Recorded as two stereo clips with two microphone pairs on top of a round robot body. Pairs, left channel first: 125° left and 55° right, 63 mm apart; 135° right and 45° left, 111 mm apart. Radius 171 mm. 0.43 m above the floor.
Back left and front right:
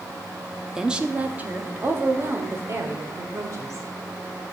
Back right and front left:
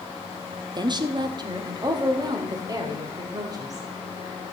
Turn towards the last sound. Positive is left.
turn(degrees=-10)